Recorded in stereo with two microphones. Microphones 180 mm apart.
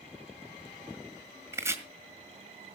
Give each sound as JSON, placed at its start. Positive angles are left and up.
{"t": 1.5, "sound": "chopping", "side_deg": -15, "distance_m": 1.6}